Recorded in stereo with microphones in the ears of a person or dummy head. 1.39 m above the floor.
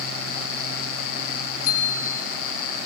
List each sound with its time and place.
1.6 s a bicycle bell: 45° left (ahead or behind), 8.5 m